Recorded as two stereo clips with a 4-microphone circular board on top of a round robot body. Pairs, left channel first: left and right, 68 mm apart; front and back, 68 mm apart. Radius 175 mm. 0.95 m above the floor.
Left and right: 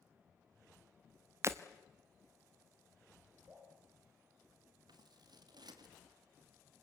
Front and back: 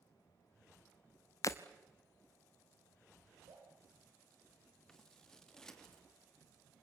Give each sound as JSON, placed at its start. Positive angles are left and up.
{"t": 1.4, "sound": "breaking glass", "azimuth_deg": -40, "distance_m": 0.6}
{"t": 3.5, "sound": "dripping", "azimuth_deg": -160, "distance_m": 8.0}
{"t": 4.9, "sound": "scissors", "azimuth_deg": -85, "distance_m": 2.0}